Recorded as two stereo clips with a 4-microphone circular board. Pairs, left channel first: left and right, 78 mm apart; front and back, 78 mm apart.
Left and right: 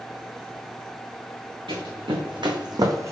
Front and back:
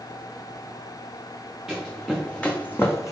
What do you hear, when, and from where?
1.7 s running footsteps: 95° right, 1.1 m; by 3.1 s 40° right, 0.6 m